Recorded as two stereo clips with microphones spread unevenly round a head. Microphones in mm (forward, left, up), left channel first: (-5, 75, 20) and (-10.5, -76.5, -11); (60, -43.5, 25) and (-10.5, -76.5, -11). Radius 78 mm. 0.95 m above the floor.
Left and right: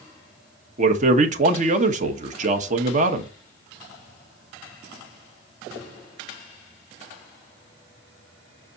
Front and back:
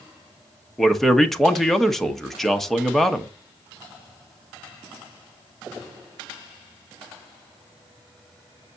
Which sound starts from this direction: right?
A man speaking, at 0.8 s.